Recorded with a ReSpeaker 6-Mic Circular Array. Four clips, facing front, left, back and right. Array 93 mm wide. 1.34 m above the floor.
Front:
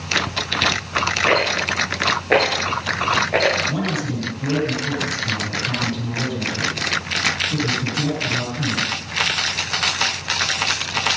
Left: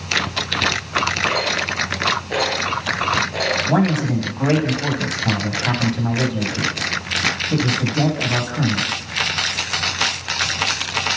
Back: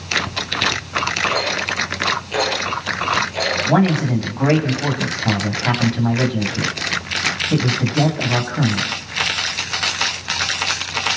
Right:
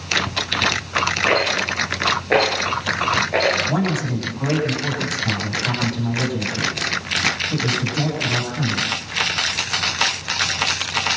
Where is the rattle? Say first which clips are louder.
Right 2 dB, front 2 dB; 30° right, 7 m.